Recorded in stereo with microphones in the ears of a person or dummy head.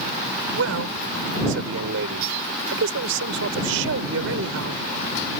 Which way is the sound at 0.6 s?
75° right (ahead or behind).